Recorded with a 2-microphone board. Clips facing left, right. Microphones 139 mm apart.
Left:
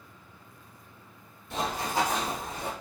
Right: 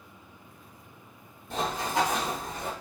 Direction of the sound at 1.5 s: 40° right (ahead or behind).